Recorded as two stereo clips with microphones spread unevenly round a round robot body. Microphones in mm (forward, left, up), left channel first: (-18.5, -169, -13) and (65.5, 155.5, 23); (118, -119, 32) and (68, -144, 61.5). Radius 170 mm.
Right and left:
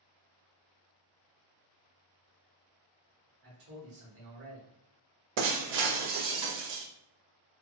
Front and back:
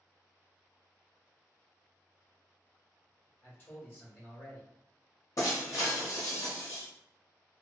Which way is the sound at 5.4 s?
60° left.